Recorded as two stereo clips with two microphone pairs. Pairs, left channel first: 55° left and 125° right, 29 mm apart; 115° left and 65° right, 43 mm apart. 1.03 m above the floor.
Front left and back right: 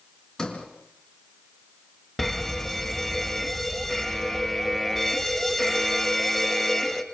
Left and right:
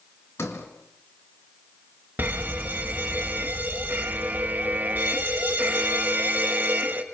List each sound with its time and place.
0.4 s a sliding door: 120° left, 3.5 m
2.2 s a fire alarm: 30° right, 2.5 m